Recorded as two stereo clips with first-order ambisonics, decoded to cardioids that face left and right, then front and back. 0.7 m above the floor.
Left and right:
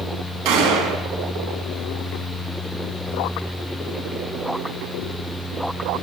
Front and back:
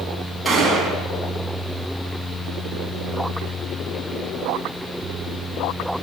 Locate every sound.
0.5 s a gunshot: 95° right, 2.5 m